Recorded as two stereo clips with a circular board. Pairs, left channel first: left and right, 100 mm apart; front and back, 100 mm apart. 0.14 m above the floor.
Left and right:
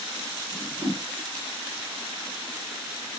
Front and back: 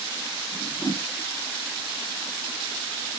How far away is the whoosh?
About 1.9 m.